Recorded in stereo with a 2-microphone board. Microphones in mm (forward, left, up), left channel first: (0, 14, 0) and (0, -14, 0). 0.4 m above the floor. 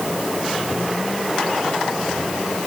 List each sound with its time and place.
Only background noise.